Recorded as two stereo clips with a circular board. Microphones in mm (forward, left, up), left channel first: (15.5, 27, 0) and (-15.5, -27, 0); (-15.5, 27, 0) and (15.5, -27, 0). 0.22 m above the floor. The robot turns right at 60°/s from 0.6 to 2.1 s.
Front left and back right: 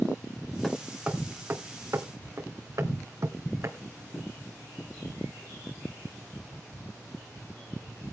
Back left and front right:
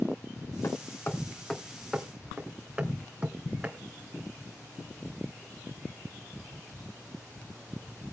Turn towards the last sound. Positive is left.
turn(degrees=-130)